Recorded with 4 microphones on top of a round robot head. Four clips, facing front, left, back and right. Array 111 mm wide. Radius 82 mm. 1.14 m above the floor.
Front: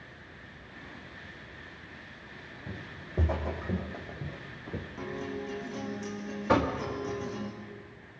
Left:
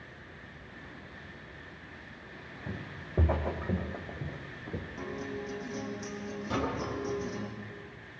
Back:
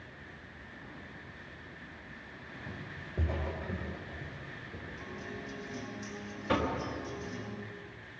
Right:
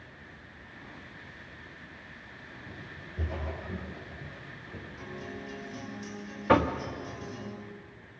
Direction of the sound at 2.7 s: 70° left.